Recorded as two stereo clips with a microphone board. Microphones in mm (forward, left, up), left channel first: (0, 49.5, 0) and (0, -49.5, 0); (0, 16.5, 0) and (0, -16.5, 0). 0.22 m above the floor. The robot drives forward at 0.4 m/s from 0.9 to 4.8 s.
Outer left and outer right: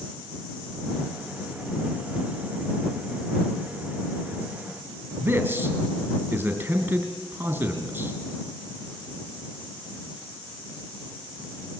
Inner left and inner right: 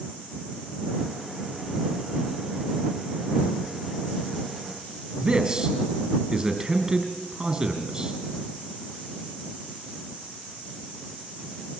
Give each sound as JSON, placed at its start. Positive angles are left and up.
{"t": 5.2, "sound": "a man speaking", "side_deg": -20, "distance_m": 3.5}